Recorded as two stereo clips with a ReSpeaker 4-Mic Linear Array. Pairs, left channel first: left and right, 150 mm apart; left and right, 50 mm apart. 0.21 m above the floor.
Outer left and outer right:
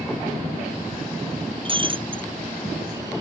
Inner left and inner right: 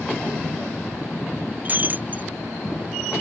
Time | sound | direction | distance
1.6 | breaking glass | 35° right (ahead or behind) | ?